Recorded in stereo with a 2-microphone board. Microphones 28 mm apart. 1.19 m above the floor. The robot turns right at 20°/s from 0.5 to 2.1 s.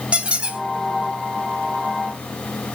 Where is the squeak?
50° right (ahead or behind), 3 m.